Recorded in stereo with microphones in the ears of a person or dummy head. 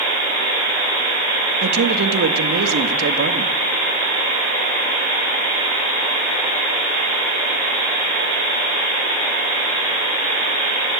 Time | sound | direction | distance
1.6 | a man speaking | 60° right (ahead or behind) | 1.9 m